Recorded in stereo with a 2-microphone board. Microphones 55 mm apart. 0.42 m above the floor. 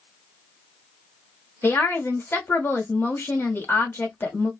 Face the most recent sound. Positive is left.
turn(degrees=45)  # may be behind; listen again after turning